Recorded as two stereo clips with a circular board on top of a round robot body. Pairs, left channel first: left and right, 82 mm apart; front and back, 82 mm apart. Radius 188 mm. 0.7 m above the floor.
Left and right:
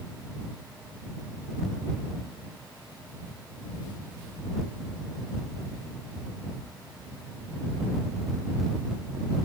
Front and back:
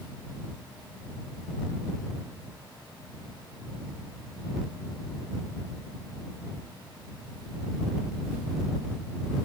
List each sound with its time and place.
Only background noise.